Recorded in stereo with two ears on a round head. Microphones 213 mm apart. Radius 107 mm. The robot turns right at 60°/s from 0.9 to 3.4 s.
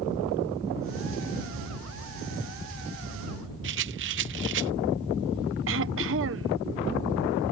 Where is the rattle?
50° right (ahead or behind).